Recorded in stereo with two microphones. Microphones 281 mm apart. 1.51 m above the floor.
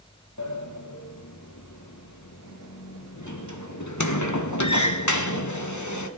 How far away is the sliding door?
About 1.4 m.